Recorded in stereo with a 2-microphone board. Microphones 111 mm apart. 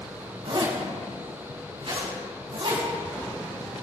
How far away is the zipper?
About 4 m.